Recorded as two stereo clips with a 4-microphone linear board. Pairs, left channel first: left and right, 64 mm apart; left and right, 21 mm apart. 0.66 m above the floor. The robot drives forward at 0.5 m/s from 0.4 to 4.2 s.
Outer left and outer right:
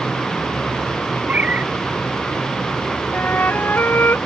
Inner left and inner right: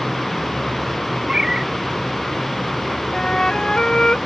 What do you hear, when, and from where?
1.2 s a cat meowing: 25° right (ahead or behind)
3.1 s a flute: 35° left (ahead or behind); by 4.2 s 40° left (ahead or behind)